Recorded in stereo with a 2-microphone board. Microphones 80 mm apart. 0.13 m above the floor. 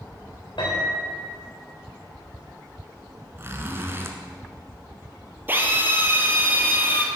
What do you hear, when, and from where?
0.6 s a piano: 80° left, 4 m
3.4 s a zipper: 30° right (ahead or behind), 1.1 m
5.5 s a drill: 25° right (ahead or behind), 1.4 m